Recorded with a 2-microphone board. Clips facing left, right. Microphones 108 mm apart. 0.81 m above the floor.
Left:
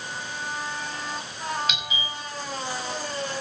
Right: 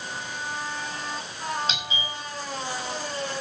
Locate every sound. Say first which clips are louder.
1.7 s a doorbell: even; 30° right (ahead or behind), 7.5 m